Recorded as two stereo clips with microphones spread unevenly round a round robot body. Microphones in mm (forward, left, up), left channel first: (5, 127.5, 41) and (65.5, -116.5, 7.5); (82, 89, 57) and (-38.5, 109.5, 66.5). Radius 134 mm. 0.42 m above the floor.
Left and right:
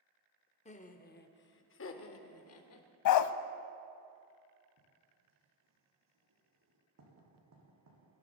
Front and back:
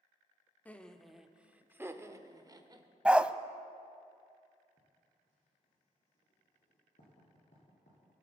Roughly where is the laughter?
Ahead left.